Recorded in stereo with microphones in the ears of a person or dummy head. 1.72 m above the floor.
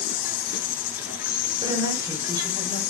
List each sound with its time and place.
0.0 s an insect: 55° left (ahead or behind), 1.2 m
1.6 s a woman speaking: 20° right (ahead or behind), 6 m